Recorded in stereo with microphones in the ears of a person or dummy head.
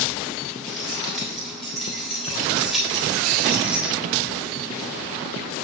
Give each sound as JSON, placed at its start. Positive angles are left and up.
{"t": 0.7, "sound": "keys jangling", "side_deg": 0, "distance_m": 6.5}